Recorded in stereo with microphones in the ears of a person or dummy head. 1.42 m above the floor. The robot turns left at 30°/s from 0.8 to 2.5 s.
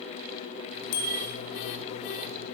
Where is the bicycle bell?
75° left (ahead or behind), 2.5 m; by 1.1 s 80° left, 2.5 m.